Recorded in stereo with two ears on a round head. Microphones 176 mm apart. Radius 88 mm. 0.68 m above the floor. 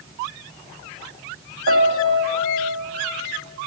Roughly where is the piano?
Right.